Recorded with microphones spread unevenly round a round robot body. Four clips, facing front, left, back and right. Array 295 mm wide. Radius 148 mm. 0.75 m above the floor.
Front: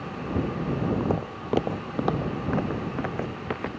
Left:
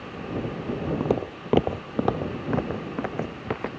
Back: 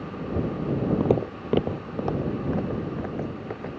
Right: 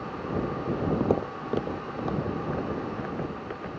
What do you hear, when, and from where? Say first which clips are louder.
1.0 s footsteps: even, back 4 dB; 175° right; by 3.7 s 55° left